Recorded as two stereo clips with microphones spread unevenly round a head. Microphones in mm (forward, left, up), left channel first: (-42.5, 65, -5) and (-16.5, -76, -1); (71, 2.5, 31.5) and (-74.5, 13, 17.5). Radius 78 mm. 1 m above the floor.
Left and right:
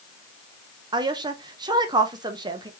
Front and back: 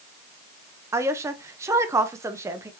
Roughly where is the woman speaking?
Behind right.